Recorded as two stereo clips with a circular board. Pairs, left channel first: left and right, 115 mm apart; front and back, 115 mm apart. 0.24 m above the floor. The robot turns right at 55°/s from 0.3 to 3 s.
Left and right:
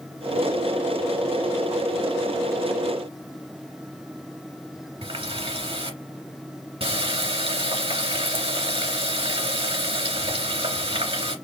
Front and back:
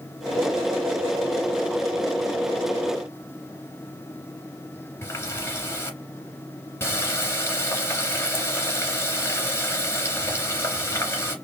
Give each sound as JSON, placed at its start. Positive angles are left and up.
{"t": 5.0, "sound": "a running tap", "azimuth_deg": -65, "distance_m": 2.5}